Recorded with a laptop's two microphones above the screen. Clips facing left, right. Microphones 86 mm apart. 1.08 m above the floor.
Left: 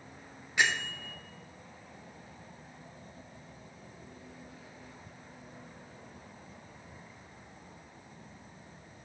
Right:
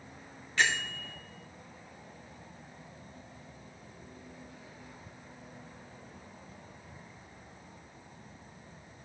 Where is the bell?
15° left (ahead or behind), 0.8 m.